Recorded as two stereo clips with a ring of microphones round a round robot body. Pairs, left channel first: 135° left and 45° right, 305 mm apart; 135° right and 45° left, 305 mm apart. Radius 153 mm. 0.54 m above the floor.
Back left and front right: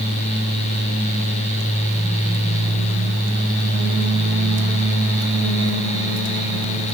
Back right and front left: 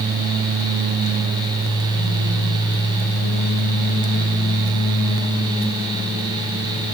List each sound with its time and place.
Only background noise.